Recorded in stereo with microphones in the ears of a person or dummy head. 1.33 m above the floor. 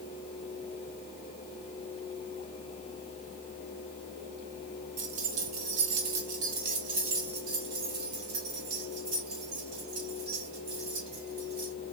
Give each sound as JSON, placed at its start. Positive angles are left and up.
{"t": 5.0, "sound": "keys jangling", "side_deg": -35, "distance_m": 0.9}